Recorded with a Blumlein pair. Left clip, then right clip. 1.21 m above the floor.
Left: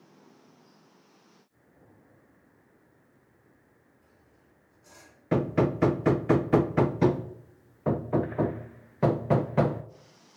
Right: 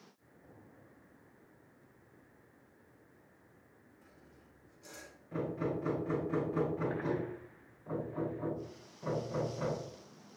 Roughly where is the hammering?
Ahead left.